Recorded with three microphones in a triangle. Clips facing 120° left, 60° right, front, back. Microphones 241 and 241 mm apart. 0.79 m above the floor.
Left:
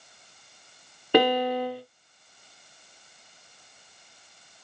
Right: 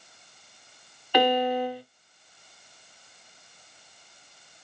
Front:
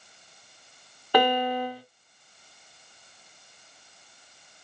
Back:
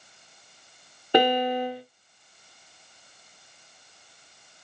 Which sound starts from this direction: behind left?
A piano, at 1.1 s.